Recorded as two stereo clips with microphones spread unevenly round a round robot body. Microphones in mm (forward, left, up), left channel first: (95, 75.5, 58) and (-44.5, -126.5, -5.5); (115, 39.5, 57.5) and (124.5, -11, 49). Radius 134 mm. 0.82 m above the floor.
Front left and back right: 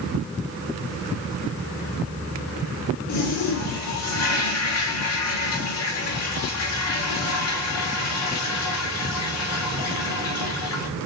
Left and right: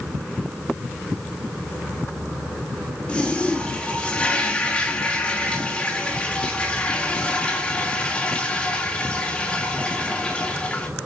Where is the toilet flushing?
30° left, 3 m.